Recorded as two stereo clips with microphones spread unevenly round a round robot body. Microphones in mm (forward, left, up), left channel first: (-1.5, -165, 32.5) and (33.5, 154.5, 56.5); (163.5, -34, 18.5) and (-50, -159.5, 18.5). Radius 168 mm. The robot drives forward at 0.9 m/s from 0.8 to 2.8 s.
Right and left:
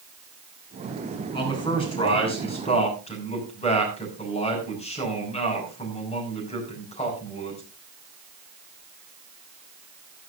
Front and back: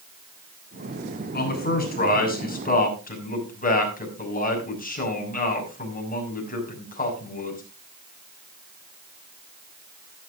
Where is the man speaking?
20° right, 7.5 m; by 7.6 s 25° right, 6 m.